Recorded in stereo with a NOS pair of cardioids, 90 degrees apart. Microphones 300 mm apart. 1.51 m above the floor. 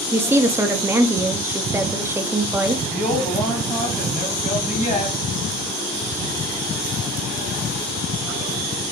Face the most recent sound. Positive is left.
turn(degrees=25)